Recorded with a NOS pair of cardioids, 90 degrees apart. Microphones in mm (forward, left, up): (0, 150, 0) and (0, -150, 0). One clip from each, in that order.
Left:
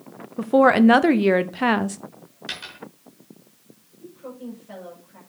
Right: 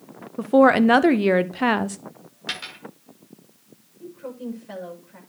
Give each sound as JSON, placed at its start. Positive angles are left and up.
{"t": 0.4, "sound": "a woman speaking", "azimuth_deg": 0, "distance_m": 0.8}
{"t": 2.5, "sound": "a dropped coin", "azimuth_deg": -25, "distance_m": 5.5}
{"t": 4.0, "sound": "a woman speaking", "azimuth_deg": -40, "distance_m": 6.5}